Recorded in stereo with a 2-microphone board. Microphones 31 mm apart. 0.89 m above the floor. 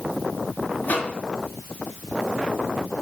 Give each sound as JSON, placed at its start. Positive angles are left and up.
{"t": 0.8, "sound": "a microwave", "side_deg": 65, "distance_m": 1.6}